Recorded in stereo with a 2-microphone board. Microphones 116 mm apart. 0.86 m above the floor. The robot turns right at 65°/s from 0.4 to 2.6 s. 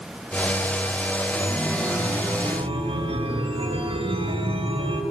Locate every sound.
1.4 s a chime: 155° left, 2.5 m; by 5.0 s 125° right, 2.5 m